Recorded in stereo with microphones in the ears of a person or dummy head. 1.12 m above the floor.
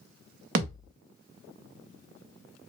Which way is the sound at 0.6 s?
50° right (ahead or behind).